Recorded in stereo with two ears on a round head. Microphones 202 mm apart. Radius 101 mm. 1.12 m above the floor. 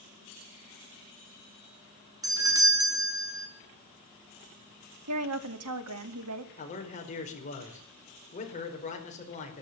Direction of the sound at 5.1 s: 75° right (ahead or behind).